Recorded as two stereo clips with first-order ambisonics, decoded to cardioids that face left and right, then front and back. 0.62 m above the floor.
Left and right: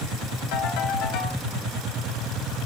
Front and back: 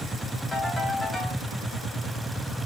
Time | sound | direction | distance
0.5 | a ringtone | 75° left | 2.5 m